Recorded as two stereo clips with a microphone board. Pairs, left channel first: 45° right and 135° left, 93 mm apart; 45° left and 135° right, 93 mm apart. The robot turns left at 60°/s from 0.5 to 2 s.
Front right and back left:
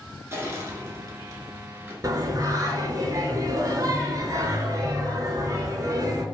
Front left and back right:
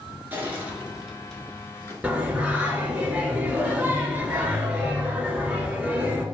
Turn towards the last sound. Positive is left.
turn(degrees=155)